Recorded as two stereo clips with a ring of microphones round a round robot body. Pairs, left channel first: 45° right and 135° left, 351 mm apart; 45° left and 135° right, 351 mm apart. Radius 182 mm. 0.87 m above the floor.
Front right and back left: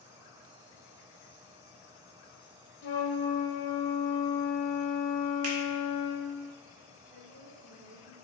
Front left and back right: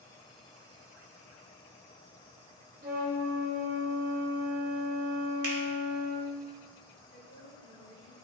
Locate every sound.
2.8 s a flute: 70° right, 1.2 m
5.4 s a finger snap: 175° right, 1.8 m
7.1 s a woman speaking: 170° left, 2.5 m